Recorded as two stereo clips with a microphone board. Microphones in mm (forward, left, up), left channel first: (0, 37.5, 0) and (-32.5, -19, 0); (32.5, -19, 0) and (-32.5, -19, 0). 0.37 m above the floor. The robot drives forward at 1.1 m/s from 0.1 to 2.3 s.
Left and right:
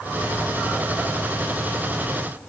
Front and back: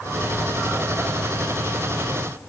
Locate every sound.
Only background noise.